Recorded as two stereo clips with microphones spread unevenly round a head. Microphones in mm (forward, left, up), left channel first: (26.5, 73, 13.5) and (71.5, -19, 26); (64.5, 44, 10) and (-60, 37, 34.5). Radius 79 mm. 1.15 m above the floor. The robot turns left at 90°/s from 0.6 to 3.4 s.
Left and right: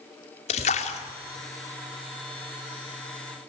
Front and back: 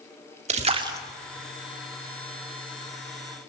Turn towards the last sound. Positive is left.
turn(degrees=-105)